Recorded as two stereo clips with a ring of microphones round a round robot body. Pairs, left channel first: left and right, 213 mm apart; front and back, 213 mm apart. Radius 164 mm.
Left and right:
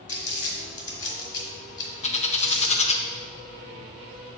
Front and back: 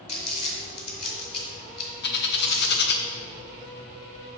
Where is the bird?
30° left, 0.6 m.